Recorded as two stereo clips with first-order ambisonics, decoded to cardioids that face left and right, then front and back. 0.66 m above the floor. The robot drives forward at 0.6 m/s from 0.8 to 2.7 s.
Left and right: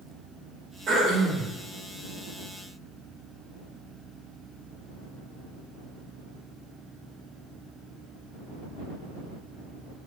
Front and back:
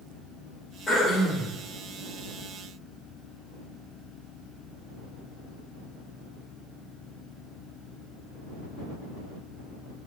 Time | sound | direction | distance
0.9 | throat clearing | 40° right | 1.4 m